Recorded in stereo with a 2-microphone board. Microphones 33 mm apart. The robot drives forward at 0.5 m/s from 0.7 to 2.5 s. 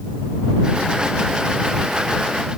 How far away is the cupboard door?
I don't hear a cupboard door.